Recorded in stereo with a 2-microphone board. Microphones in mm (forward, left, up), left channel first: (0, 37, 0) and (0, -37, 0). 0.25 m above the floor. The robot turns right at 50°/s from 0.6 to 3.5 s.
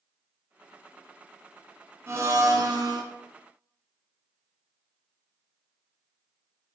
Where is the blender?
145° right, 0.7 m; by 3.0 s 95° right, 0.7 m.